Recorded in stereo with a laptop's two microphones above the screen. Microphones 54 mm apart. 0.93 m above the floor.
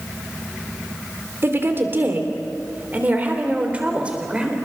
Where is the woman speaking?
40° right (ahead or behind), 3 m; by 4.5 s 15° right (ahead or behind), 4 m.